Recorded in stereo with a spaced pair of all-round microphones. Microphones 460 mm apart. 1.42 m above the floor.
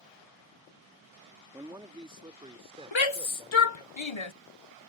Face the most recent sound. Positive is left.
turn(degrees=65)  # may be behind; listen again after turning